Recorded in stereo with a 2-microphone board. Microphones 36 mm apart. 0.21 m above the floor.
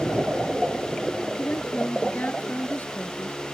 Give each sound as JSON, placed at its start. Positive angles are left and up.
{"t": 1.4, "sound": "a woman speaking", "side_deg": 50}